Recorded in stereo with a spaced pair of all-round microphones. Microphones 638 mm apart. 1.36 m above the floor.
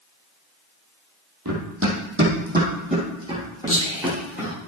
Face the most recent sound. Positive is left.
turn(degrees=20)  # may be behind; listen again after turning